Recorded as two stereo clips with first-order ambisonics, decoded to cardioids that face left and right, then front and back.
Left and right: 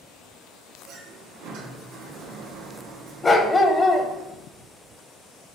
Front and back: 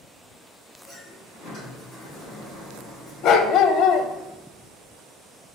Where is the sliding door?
60° right, 4 m.